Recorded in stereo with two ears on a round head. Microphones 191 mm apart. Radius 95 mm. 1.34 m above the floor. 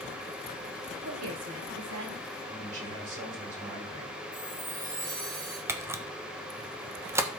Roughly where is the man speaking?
Right.